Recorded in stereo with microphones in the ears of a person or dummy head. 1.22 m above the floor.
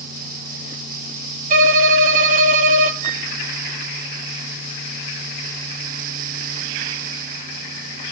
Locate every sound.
1.5 s a violin: 45° right (ahead or behind), 0.6 m
3.0 s a flute: 55° right (ahead or behind), 1.1 m